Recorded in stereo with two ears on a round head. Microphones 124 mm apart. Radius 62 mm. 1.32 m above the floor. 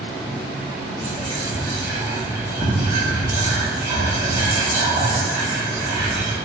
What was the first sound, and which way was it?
Whispering, 30° right (ahead or behind).